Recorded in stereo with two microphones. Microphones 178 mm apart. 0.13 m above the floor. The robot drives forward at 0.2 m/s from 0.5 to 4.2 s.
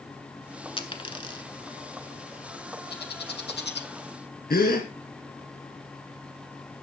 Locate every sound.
0.8 s a dropped coin: 30° left (ahead or behind), 0.8 m
2.9 s a bird: 70° left (ahead or behind), 1.0 m; by 3.9 s 80° left, 1.0 m
4.5 s a gasp: 55° left (ahead or behind), 2 m